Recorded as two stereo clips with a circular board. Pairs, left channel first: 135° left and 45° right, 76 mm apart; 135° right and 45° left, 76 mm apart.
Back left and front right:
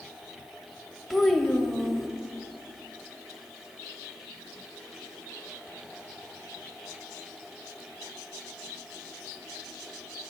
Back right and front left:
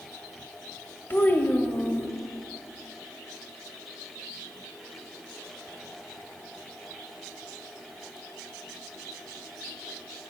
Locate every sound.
1.1 s a child speaking: 135° right, 0.6 m